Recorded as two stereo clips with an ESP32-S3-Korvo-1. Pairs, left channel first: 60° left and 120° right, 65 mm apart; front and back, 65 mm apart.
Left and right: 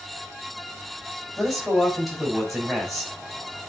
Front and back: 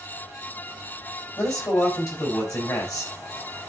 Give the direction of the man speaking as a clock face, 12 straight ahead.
1 o'clock.